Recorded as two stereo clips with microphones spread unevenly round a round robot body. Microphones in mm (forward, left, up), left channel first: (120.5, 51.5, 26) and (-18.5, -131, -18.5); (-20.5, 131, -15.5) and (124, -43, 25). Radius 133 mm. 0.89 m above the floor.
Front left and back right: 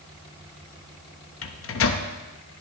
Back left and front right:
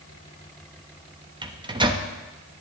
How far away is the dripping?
I don't hear dripping.